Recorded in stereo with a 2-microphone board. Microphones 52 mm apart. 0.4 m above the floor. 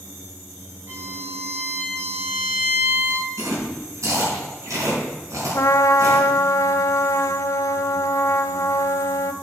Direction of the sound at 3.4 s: 60° right (ahead or behind).